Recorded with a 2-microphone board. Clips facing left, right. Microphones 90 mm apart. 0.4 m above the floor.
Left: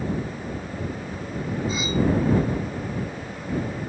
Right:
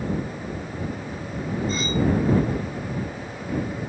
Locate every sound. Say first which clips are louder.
1.7 s cutlery clinking: even; 5° left (ahead or behind)